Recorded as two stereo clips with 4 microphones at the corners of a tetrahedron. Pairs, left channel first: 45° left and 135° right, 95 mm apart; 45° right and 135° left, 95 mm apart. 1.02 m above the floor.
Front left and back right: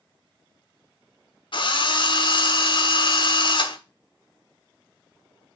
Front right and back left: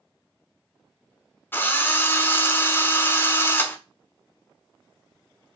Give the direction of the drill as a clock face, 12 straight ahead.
11 o'clock.